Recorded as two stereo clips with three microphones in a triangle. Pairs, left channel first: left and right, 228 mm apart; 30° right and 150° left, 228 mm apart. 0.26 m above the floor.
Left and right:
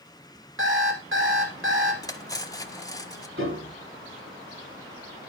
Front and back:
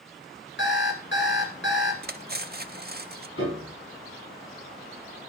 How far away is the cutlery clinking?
About 0.7 m.